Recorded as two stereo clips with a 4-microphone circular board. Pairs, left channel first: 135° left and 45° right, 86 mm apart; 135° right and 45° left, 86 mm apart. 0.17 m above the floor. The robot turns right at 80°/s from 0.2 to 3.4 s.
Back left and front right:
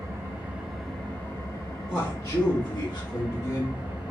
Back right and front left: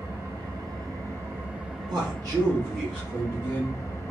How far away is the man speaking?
About 2.5 m.